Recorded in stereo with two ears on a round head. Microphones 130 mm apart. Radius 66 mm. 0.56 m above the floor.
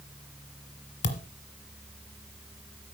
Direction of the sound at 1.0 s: 55° left (ahead or behind).